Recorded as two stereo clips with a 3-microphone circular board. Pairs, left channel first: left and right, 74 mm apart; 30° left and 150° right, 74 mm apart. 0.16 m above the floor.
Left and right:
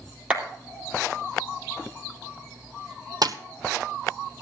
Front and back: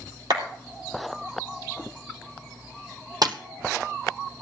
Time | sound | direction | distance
0.3 | a clap | 165° right | 4 m
3.2 | a splash | 120° right | 1.1 m